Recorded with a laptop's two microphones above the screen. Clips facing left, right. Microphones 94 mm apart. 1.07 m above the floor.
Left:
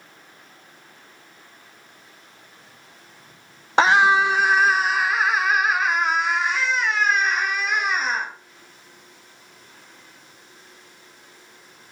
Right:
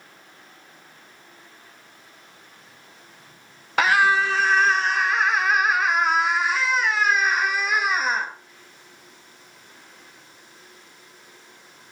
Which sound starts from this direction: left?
A scream, at 3.8 s.